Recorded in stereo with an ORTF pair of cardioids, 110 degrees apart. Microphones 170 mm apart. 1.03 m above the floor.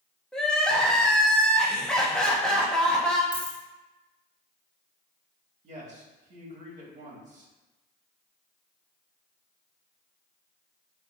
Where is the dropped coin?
10° left, 0.9 m.